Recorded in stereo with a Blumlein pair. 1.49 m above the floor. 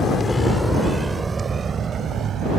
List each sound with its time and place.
0.0 s a vehicle: 20° left; by 2.6 s 30° right